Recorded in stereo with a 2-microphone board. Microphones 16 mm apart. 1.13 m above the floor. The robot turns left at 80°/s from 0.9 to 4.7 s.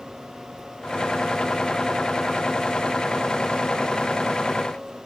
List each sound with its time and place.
Only background noise.